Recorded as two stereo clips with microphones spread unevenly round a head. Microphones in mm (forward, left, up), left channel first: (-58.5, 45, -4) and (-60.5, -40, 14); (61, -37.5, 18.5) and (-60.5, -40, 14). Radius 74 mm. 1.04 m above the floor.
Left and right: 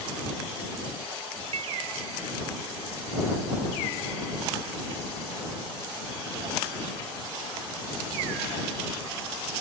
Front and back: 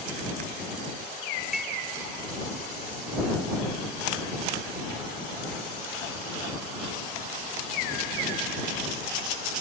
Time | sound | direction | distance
1.5 | dishes clattering | 90° right | ?